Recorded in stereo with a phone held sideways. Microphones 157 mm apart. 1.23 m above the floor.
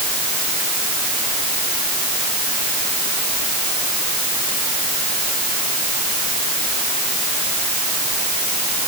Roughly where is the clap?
I don't hear a clap.